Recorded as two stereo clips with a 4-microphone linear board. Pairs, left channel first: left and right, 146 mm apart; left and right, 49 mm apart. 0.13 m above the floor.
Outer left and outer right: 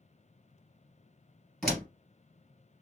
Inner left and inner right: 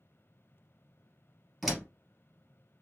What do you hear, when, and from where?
1.6 s a door slam: centre (ahead or behind), 2 m